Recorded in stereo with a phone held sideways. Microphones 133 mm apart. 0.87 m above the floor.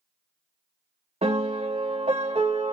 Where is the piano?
50° right (ahead or behind), 0.8 m.